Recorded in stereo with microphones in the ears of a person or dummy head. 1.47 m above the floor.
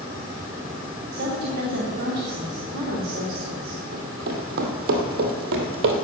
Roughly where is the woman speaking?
Right.